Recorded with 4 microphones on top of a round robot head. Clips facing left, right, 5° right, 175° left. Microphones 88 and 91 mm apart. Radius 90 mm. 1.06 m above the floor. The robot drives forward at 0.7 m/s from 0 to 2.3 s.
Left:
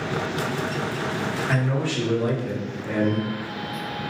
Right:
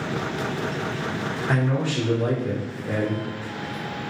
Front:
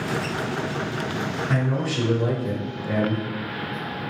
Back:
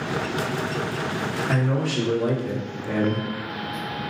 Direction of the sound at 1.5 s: 160° right.